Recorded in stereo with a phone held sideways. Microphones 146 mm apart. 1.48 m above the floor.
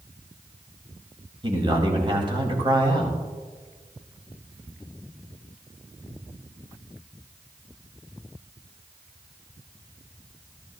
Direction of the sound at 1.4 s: 35° right (ahead or behind).